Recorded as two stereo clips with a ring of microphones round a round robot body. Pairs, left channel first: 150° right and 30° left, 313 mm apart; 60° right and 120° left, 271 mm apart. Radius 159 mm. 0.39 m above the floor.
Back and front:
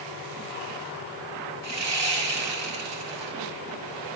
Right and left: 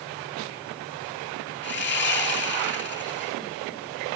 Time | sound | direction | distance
1.6 | sawing | 10° right | 5 m